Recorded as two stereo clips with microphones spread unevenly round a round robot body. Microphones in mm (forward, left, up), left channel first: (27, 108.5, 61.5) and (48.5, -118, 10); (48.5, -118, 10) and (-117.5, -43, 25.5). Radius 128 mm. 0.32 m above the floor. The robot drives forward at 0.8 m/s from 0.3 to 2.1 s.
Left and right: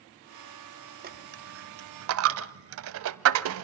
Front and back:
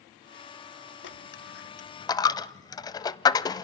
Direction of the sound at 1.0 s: 35° right.